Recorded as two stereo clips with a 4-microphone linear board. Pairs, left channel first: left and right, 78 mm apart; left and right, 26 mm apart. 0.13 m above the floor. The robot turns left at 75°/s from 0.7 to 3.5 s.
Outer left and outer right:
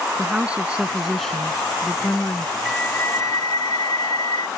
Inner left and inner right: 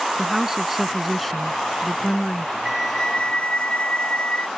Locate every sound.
0.2 s a woman speaking: 15° right (ahead or behind); by 2.5 s 30° left (ahead or behind)
2.6 s a flute: 175° left; by 4.5 s 115° left